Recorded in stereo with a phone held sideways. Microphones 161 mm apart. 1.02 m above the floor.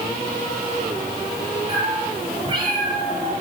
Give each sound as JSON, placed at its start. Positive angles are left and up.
{"t": 1.7, "sound": "a cat meowing", "side_deg": -25, "distance_m": 9.5}